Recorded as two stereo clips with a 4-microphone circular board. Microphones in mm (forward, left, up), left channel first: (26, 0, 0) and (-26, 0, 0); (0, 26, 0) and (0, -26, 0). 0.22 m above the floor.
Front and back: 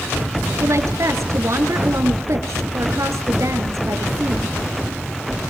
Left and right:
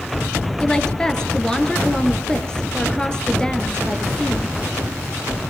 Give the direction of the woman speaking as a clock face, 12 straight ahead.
6 o'clock.